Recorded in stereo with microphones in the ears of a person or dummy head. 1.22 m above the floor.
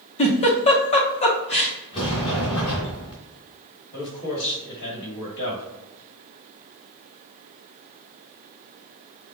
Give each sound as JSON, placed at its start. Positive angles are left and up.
{"t": 0.2, "sound": "a giggle", "side_deg": 30, "distance_m": 0.9}
{"t": 1.9, "sound": "a sliding door", "side_deg": 25, "distance_m": 2.5}
{"t": 3.9, "sound": "a man speaking", "side_deg": 65, "distance_m": 2.0}